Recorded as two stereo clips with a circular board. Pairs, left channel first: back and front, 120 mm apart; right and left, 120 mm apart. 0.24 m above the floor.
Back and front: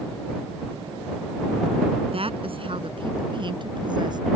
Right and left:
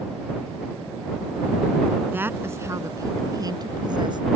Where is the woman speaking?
20° left; by 4.2 s 45° left.